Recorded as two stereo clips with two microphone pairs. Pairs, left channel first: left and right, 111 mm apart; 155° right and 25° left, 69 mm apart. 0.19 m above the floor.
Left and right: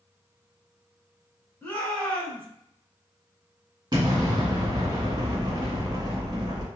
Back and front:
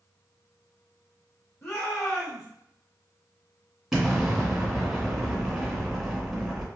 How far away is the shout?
About 1.9 m.